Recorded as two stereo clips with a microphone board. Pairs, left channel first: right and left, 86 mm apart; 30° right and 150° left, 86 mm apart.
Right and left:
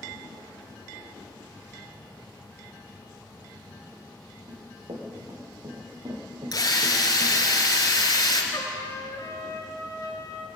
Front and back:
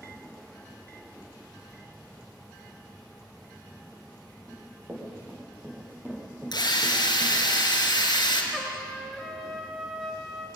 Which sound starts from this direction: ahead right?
A drill, at 6.5 s.